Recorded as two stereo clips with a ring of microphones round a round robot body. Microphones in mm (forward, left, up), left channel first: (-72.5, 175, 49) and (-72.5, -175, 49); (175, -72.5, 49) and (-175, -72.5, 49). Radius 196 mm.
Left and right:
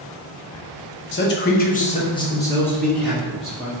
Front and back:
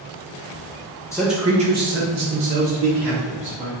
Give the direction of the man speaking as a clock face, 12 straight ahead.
10 o'clock.